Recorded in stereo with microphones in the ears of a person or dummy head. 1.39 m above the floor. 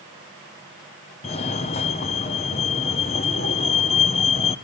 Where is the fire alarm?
30° left (ahead or behind), 1.1 m.